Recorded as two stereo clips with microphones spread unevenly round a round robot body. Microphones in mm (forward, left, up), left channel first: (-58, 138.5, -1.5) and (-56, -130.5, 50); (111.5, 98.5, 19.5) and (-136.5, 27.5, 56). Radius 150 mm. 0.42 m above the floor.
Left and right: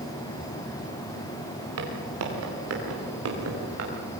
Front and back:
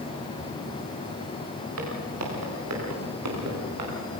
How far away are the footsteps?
About 7 m.